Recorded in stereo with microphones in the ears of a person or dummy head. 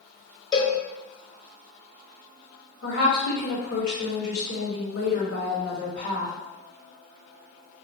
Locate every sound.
0.5 s a cowbell: 25° left (ahead or behind), 1.0 m
2.8 s a woman speaking: 70° left (ahead or behind), 2.0 m